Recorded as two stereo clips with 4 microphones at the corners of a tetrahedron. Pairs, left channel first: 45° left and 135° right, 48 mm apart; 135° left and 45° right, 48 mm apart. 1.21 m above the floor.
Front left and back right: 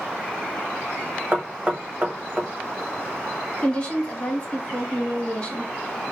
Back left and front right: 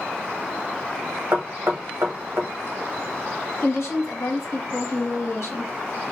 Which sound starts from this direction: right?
Knocking, at 1.3 s.